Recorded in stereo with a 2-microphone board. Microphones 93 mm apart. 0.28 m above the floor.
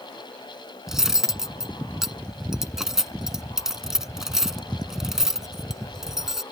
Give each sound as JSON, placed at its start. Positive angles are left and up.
{"t": 0.9, "sound": "cutlery clinking", "side_deg": -5}